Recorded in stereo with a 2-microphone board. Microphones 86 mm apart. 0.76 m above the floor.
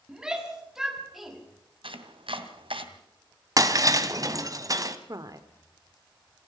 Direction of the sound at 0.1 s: 10° right (ahead or behind).